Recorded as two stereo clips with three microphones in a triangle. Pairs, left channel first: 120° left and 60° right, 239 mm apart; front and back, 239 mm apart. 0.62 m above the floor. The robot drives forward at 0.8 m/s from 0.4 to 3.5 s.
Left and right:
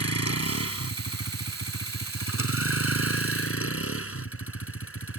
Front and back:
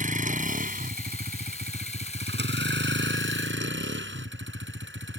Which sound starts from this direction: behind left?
A vehicle, at 0.0 s.